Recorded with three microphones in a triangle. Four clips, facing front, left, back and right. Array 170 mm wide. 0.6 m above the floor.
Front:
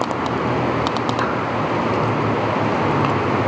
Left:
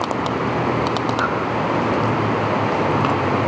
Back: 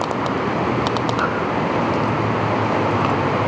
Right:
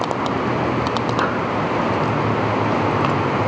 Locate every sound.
1.2 s breathing: 65° right, 7 m